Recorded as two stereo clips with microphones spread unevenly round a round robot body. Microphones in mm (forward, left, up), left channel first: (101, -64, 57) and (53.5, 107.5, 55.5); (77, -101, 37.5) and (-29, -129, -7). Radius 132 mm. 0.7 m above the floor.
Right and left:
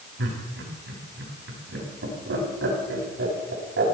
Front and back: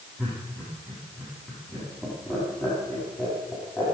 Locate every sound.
0.2 s laughter: 105° left, 6.5 m